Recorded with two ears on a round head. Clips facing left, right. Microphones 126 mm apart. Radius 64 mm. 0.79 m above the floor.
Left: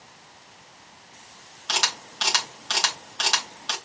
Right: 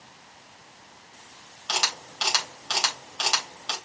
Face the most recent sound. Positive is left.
turn(degrees=0)  # may be behind; listen again after turning